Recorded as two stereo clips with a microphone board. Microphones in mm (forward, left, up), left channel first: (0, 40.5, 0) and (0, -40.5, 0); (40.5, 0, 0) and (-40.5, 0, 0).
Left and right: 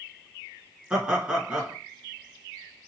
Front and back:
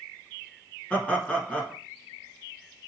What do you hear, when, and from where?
0.9 s laughter: 40° right, 1.4 m